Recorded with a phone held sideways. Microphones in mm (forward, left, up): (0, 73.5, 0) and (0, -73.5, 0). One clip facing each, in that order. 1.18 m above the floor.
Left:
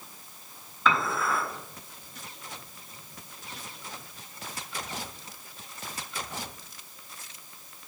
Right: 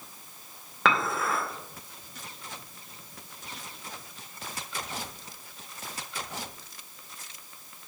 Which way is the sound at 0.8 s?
80° right.